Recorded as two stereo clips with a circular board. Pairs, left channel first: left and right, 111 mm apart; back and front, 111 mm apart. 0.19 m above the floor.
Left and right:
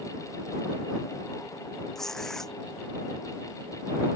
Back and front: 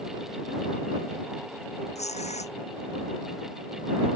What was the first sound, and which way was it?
Tearing paper, 175° left.